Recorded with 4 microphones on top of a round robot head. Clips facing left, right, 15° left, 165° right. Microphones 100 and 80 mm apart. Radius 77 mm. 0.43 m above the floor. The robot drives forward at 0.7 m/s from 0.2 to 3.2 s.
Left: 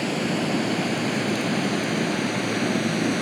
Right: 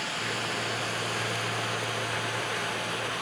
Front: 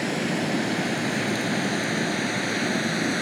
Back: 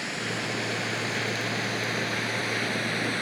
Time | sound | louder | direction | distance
0.0 | running water | left 9 dB, front 7 dB | 55° left | ?